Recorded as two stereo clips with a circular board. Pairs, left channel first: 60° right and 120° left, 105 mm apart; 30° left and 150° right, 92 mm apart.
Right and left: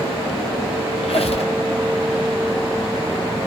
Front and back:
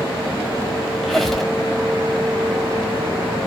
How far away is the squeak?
About 0.9 m.